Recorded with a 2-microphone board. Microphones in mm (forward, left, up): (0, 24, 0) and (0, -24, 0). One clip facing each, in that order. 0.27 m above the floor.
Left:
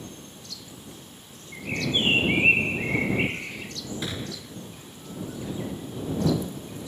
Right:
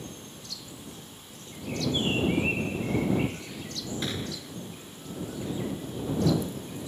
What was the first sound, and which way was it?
A bird, 50° left (ahead or behind).